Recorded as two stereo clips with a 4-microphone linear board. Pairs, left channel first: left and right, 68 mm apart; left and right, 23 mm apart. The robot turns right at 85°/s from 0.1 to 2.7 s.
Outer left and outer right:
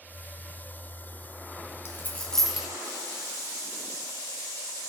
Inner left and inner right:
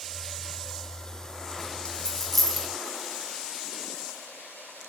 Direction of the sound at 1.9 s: 45° left (ahead or behind).